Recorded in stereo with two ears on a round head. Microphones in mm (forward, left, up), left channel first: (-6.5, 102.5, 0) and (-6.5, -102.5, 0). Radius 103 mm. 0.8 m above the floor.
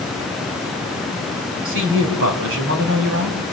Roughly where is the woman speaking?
Right.